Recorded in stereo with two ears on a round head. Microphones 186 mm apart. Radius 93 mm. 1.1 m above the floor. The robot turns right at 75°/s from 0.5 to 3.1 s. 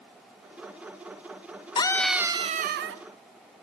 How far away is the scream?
About 0.7 m.